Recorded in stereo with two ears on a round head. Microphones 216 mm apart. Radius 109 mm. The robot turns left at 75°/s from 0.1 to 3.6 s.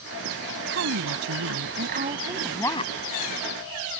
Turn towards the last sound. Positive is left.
turn(degrees=95)